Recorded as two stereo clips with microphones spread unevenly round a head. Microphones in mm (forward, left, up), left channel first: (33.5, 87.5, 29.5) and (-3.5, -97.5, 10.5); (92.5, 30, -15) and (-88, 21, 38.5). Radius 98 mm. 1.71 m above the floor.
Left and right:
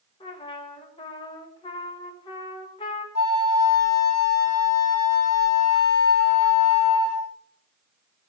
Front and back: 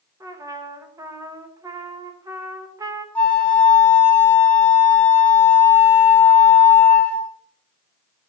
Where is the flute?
90° left, 1.9 m.